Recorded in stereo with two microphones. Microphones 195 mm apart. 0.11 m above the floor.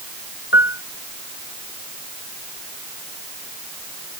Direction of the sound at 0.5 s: 65° left (ahead or behind).